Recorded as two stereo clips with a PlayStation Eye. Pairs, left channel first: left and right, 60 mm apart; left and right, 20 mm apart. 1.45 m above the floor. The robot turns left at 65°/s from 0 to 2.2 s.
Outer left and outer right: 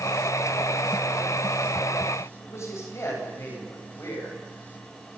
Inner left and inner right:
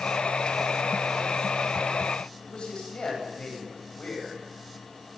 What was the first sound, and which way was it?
A man speaking, 55° left (ahead or behind).